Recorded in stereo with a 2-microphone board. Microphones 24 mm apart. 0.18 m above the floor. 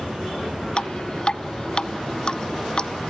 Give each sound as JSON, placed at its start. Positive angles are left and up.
{"t": 0.8, "sound": "dripping", "side_deg": 35, "distance_m": 0.9}